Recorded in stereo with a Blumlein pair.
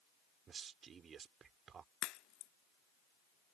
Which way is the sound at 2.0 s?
35° left.